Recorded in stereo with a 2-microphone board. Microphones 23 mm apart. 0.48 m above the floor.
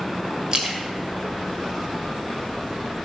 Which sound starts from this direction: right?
A splash, at 0.5 s.